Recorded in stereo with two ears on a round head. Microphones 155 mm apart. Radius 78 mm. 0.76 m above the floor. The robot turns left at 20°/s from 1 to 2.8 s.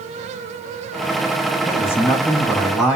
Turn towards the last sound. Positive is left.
turn(degrees=-5)  # may be behind; listen again after turning